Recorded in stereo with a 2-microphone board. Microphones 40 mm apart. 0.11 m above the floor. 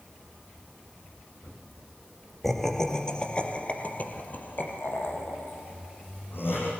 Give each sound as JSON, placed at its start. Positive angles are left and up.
{"t": 2.4, "sound": "laughter", "side_deg": 5, "distance_m": 3.5}